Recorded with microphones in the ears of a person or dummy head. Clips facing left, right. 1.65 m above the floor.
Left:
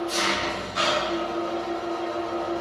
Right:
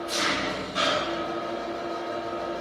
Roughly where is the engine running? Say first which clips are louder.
Left 2 dB; right.